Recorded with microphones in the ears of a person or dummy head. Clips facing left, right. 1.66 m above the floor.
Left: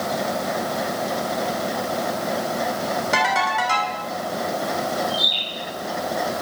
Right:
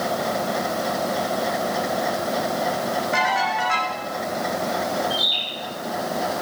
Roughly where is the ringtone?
Left.